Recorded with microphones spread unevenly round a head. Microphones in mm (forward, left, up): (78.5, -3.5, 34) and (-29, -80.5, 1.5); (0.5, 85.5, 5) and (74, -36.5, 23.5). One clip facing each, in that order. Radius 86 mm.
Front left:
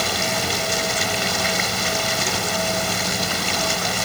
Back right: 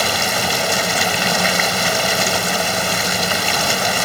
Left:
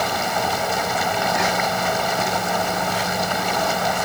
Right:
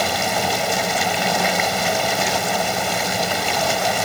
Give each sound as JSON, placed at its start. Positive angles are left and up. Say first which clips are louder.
{"t": 0.0, "sound": "running water", "louder": "back right 4 dB, right 1 dB", "azimuth_deg": -125}